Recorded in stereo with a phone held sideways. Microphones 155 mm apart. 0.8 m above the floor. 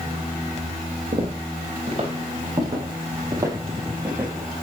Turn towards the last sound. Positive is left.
turn(degrees=-10)  # may be behind; listen again after turning